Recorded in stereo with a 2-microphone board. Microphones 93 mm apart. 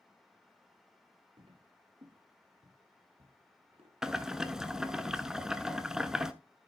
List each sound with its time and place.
1.4 s footsteps: 70° right (ahead or behind), 2 m; by 3.9 s 85° right, 4.5 m
4.0 s boiling: 5° right (ahead or behind), 0.7 m